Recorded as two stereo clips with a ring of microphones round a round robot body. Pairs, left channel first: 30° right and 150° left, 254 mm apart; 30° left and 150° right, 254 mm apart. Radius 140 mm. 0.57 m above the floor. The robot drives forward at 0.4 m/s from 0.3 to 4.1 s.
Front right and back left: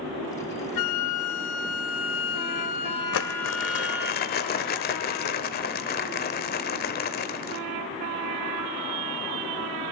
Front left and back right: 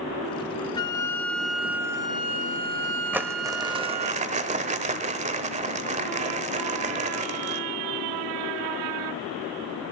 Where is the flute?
45° right, 1.0 m; by 4.1 s 130° right, 1.0 m.